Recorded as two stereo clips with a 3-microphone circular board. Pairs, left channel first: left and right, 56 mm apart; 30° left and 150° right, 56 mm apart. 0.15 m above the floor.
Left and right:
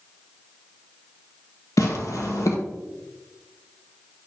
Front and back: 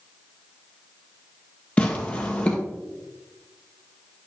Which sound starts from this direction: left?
Tearing paper, at 1.8 s.